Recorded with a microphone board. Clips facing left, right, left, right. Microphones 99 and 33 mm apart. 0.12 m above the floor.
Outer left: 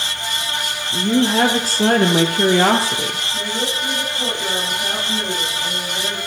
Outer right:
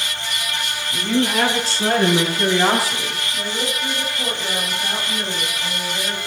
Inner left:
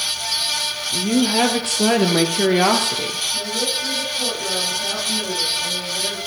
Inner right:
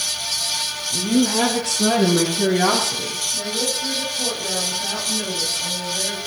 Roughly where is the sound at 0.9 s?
Left.